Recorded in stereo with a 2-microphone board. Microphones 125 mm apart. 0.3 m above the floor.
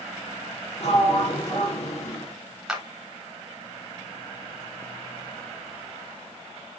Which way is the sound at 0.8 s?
50° left (ahead or behind).